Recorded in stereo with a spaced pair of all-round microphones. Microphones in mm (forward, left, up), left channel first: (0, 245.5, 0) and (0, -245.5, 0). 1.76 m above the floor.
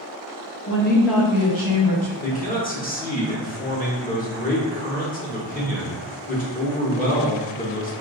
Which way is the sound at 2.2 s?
20° left (ahead or behind).